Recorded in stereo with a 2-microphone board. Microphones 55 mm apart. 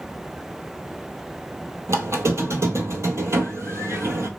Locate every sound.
1.9 s a squeak: 60° right (ahead or behind), 0.6 m